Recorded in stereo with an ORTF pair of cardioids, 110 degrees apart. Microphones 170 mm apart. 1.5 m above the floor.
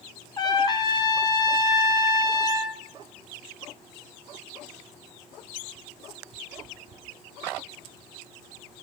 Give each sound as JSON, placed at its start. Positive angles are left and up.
{"t": 0.4, "sound": "a trumpet", "azimuth_deg": 25, "distance_m": 0.7}